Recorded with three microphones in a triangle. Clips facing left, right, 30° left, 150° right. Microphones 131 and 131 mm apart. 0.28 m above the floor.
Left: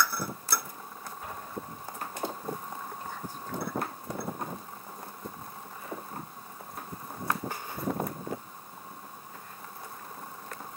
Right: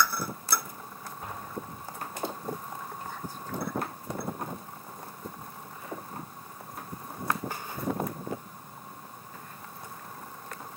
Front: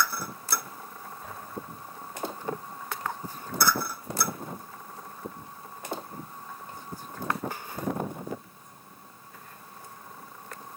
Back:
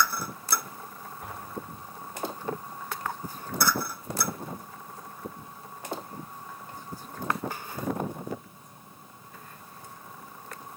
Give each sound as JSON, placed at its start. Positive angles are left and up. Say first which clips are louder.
{"t": 1.2, "sound": "an explosion", "louder": "right 1 dB, back 2 dB", "azimuth_deg": -135, "distance_m": 8.5}